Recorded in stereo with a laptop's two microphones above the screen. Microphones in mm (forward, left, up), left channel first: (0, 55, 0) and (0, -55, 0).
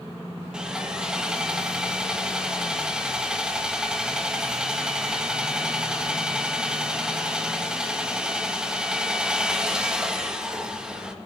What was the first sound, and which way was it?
Sawing, 10° right (ahead or behind).